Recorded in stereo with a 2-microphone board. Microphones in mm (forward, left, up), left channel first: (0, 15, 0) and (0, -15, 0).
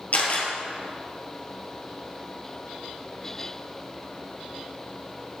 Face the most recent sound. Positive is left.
turn(degrees=55)  # may be behind; listen again after turning